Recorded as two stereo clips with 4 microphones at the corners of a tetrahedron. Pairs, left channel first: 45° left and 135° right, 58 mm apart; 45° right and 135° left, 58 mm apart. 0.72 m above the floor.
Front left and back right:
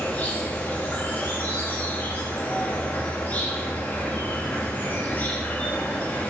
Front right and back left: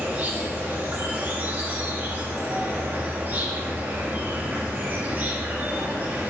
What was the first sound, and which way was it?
An insect, 90° left.